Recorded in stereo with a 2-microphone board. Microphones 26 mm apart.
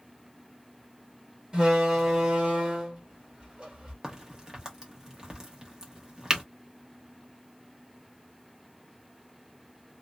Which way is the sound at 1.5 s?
30° right (ahead or behind).